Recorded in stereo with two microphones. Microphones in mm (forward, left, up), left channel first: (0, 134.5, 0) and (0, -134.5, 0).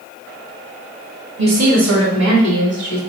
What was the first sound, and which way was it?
A woman speaking, 60° right (ahead or behind).